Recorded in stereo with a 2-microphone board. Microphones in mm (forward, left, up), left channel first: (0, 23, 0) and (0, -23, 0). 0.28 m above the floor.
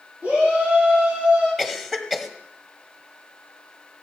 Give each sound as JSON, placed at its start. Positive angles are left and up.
{"t": 0.2, "sound": "a shout", "side_deg": -30, "distance_m": 6.5}
{"t": 1.6, "sound": "a cough", "side_deg": -10, "distance_m": 1.5}